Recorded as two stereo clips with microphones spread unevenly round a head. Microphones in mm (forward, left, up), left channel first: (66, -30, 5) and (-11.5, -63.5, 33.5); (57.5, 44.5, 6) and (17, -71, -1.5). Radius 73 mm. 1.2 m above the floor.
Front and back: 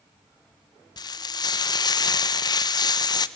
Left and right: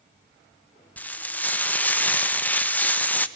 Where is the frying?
5° right, 1.2 m.